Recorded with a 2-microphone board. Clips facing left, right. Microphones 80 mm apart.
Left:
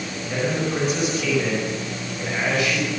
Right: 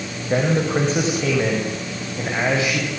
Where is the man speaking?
40° right (ahead or behind), 5.5 m; by 2.9 s 25° right (ahead or behind), 6 m.